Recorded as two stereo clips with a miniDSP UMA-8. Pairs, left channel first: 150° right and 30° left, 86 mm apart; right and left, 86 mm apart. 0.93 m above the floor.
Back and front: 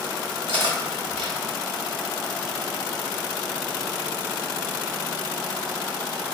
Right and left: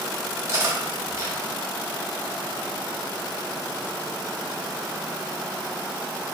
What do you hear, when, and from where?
0.5 s cutlery clinking: 35° left, 1.4 m